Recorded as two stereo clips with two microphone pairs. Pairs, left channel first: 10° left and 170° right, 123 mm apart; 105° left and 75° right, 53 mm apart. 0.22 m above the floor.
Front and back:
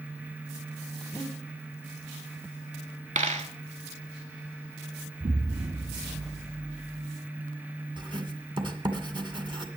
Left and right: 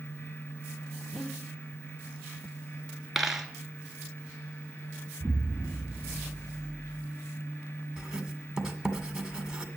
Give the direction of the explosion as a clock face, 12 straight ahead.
6 o'clock.